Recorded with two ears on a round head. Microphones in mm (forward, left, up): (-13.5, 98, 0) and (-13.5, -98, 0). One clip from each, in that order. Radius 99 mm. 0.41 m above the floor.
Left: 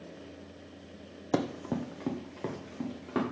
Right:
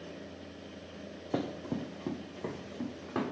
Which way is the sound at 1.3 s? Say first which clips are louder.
Left 4 dB; 60° left (ahead or behind).